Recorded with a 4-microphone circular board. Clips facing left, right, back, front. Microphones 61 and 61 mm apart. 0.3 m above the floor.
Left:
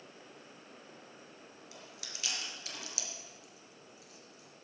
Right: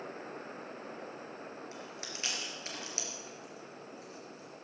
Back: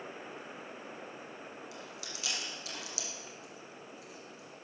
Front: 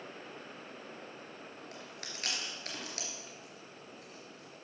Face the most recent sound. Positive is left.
turn(degrees=-35)